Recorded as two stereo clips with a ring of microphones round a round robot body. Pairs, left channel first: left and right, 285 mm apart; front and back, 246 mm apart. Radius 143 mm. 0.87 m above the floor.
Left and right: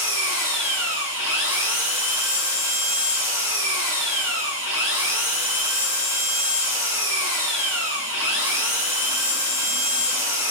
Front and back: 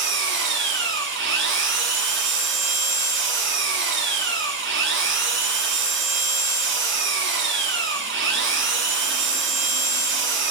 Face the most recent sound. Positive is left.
turn(degrees=140)